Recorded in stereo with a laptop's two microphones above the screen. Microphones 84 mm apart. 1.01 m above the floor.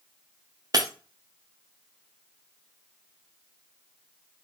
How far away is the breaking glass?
About 0.6 m.